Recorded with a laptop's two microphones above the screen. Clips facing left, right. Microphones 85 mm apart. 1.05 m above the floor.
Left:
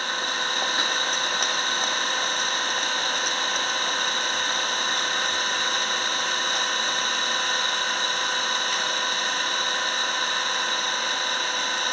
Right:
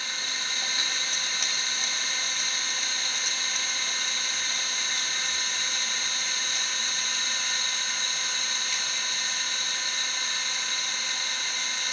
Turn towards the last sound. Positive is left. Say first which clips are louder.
# left 9 dB
turn(degrees=50)  # may be behind; listen again after turning